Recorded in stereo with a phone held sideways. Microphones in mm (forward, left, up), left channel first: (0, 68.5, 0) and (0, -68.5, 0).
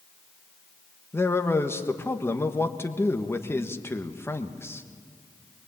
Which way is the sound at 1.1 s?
15° left (ahead or behind).